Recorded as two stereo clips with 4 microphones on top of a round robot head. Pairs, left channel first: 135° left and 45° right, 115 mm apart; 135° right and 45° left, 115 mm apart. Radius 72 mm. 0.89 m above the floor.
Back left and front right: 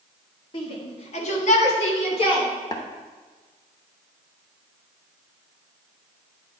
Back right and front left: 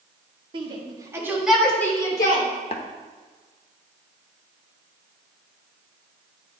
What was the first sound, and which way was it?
A shout, 90° left.